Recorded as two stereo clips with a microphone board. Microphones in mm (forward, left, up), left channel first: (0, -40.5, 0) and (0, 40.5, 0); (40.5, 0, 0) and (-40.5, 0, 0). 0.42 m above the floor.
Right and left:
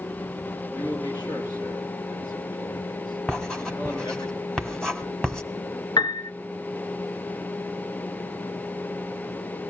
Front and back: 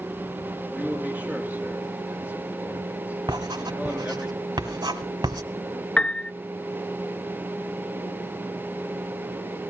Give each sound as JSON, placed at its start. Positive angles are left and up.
{"t": 0.7, "sound": "a man speaking", "azimuth_deg": -110, "distance_m": 6.5}
{"t": 3.3, "sound": "writing", "azimuth_deg": -170, "distance_m": 1.8}
{"t": 6.0, "sound": "a piano", "azimuth_deg": -75, "distance_m": 0.9}